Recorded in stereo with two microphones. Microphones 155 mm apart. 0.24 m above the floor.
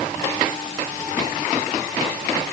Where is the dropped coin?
No dropped coin in this recording.